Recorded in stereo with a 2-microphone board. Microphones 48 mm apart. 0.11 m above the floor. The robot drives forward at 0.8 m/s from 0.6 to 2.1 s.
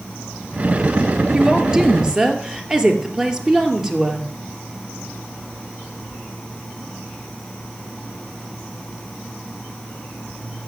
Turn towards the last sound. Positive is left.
turn(degrees=-15)  # may be behind; listen again after turning